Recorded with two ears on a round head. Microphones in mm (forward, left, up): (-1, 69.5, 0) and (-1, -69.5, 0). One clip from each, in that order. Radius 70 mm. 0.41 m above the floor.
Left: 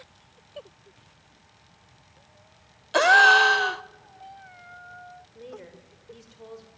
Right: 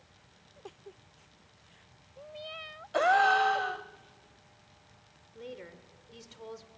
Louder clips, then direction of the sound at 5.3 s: Even; 35° right (ahead or behind).